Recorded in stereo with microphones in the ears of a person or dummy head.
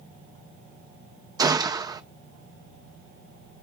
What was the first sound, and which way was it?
A gunshot, 15° right (ahead or behind).